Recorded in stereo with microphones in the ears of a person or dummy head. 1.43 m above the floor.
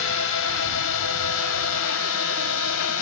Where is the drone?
65° left (ahead or behind); by 3.0 s 70° left (ahead or behind).